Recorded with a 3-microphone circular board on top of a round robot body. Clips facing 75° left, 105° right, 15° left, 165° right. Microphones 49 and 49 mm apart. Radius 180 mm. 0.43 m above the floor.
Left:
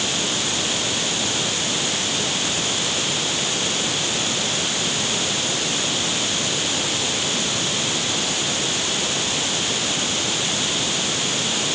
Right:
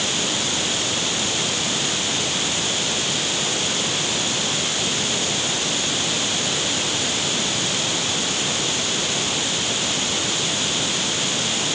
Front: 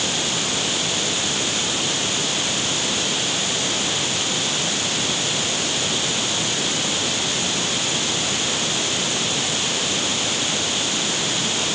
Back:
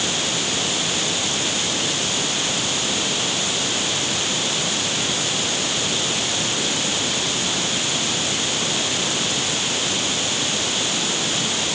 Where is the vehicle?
No vehicle in this recording.